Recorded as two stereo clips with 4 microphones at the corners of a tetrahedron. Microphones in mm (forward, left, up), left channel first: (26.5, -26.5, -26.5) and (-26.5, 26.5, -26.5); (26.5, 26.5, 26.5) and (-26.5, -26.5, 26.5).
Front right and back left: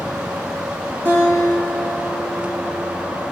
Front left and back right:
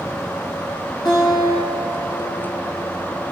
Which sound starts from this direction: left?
A guitar, at 1.1 s.